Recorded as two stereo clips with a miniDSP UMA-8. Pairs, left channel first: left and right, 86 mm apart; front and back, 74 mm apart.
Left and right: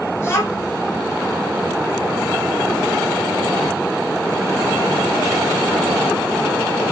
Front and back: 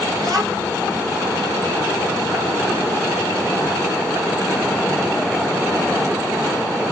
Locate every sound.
0.2 s a child speaking: 150° left, 1.6 m